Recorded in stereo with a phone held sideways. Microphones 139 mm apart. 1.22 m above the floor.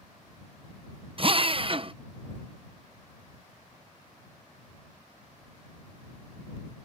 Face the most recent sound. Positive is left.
turn(degrees=-40)  # may be behind; listen again after turning